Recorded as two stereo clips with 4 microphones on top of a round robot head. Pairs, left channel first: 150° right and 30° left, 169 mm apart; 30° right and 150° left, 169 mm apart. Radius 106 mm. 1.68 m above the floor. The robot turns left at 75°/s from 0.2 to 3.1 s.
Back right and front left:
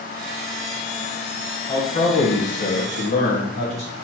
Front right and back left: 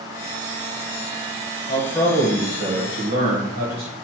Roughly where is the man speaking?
Right.